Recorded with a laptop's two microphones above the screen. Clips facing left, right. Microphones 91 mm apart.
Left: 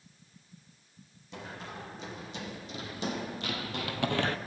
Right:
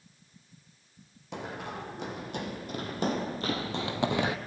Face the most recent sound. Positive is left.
turn(degrees=-10)  # may be behind; listen again after turning